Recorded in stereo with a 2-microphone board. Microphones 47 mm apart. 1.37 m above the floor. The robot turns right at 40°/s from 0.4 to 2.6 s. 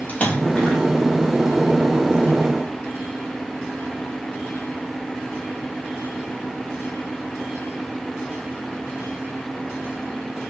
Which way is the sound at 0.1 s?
30° left (ahead or behind).